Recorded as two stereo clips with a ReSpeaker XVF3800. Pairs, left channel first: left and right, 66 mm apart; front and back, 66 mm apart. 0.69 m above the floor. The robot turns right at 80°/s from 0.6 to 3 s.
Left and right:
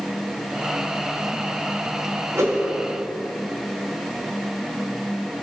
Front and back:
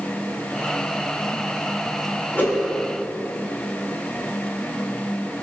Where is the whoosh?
60° right, 3 m; by 2.6 s 40° right, 3 m.